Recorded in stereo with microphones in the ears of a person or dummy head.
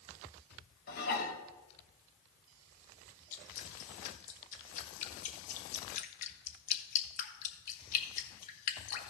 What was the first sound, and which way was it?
Dishes clattering, 60° left (ahead or behind).